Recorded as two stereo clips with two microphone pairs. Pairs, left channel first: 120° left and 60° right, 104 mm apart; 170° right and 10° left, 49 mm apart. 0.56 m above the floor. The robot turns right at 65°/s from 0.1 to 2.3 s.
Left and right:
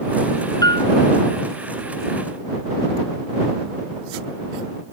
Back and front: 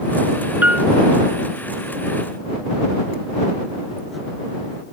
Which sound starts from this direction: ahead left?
A piano, at 0.6 s.